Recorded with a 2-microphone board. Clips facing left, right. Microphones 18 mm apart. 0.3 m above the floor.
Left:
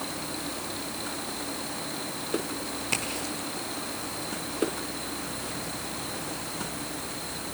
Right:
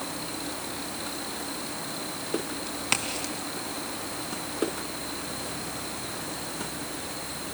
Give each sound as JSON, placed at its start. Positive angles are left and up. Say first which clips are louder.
{"t": 2.7, "sound": "a crack", "louder": "right 4 dB", "side_deg": -45, "distance_m": 2.5}